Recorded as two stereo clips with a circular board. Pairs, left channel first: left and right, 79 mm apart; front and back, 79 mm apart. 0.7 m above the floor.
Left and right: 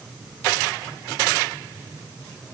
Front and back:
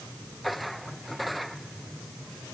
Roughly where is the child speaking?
No child speaking in this recording.